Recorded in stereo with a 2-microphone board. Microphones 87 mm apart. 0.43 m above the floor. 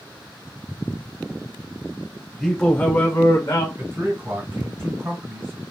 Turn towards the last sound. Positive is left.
turn(degrees=-30)  # may be behind; listen again after turning